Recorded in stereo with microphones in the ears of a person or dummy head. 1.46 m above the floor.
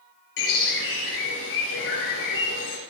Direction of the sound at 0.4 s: 70° left (ahead or behind).